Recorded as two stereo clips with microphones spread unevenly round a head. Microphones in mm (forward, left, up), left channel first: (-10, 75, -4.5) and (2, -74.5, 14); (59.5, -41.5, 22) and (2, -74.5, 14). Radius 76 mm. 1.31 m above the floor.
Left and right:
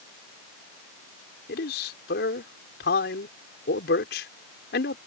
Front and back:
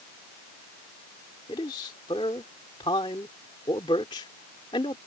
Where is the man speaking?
70° left.